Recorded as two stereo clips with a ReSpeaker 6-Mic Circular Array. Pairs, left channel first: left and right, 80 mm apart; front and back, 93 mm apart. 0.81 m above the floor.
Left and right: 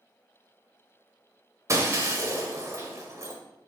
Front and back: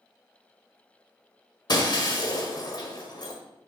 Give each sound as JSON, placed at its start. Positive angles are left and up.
{"t": 1.7, "sound": "breaking glass", "azimuth_deg": -40, "distance_m": 1.8}